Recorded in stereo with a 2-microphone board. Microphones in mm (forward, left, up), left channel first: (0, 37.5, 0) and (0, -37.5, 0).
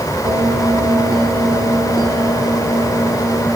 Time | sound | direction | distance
0.2 | a bell | 70° right (ahead or behind) | 3 m